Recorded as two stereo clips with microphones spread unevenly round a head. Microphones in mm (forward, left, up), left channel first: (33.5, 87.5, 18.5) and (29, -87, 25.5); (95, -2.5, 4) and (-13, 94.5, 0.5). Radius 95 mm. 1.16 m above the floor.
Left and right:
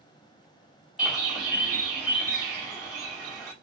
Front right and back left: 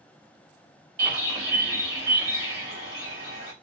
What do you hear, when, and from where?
1.0 s a bird: straight behind, 1.2 m